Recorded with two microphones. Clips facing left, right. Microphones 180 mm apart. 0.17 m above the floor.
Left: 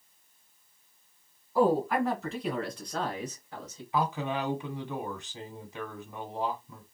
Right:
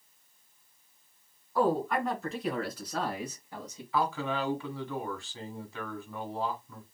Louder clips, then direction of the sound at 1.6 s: Left 3 dB; 10° left (ahead or behind).